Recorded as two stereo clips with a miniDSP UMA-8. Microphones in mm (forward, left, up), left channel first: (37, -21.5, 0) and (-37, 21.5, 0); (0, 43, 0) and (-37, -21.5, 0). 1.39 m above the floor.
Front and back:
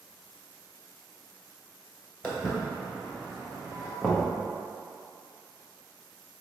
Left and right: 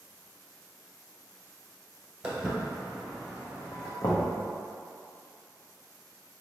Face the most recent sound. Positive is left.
turn(degrees=55)